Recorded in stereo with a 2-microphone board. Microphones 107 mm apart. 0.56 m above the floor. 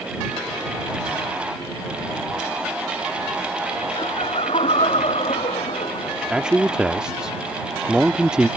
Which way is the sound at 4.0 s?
70° left (ahead or behind).